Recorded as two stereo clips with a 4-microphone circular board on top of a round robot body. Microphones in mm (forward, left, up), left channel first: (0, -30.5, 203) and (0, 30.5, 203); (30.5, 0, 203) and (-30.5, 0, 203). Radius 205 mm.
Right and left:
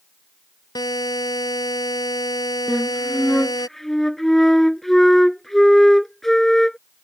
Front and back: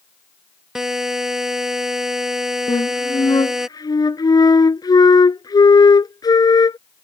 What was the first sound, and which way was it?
A buzzer, 95° right.